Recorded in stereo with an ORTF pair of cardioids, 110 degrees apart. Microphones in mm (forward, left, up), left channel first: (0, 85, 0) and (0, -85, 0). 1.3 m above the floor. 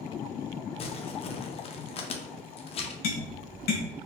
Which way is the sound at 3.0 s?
65° left.